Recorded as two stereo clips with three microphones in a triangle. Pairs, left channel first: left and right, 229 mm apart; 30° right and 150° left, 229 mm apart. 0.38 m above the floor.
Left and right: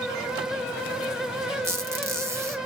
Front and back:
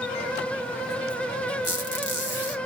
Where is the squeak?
15° right, 0.8 m.